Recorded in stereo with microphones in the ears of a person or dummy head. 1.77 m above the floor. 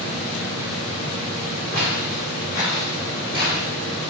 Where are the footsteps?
10° left (ahead or behind), 1.8 m; by 3.7 s 45° left (ahead or behind), 2.5 m.